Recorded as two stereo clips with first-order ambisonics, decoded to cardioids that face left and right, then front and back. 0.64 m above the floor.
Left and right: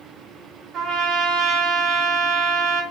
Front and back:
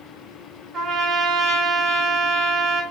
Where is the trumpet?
125° right, 0.6 m.